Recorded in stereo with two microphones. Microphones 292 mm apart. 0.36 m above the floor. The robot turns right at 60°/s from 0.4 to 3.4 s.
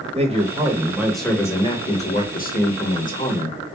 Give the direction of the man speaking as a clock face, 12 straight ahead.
2 o'clock.